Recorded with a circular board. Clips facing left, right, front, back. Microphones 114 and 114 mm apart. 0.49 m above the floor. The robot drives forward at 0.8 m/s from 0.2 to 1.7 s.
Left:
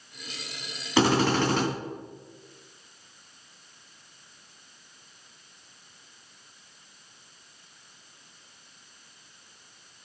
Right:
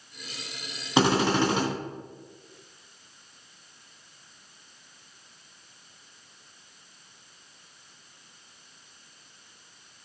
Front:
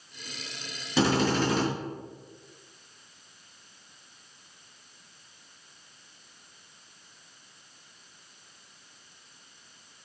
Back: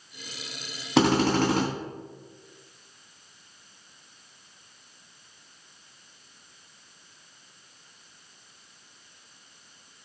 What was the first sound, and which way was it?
A drill, 160° right.